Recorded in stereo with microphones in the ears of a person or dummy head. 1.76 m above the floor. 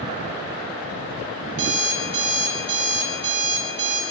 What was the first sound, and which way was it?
An alarm clock, 65° right (ahead or behind).